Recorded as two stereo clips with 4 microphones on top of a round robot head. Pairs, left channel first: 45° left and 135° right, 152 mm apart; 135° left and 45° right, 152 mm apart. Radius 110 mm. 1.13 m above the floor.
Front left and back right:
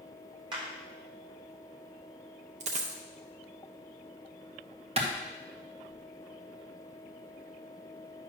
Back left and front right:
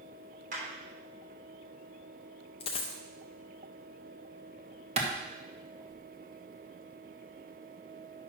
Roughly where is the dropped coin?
Behind.